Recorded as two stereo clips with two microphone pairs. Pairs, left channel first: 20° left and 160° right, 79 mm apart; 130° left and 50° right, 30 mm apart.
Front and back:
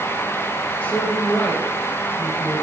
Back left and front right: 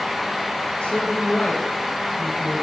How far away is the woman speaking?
About 5 m.